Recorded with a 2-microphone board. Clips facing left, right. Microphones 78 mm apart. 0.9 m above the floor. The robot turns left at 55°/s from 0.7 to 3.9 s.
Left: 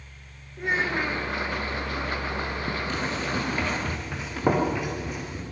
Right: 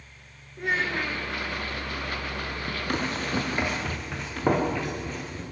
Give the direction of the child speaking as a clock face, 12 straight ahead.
6 o'clock.